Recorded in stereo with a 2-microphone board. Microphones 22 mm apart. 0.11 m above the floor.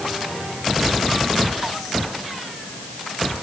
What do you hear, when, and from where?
Only background noise.